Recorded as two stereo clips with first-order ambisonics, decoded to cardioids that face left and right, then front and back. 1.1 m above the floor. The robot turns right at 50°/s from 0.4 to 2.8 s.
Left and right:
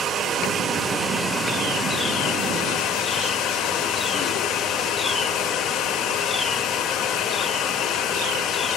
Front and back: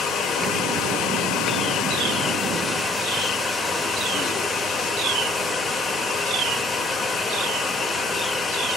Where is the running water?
45° right, 1.0 m; by 8.8 s 75° left, 1.0 m.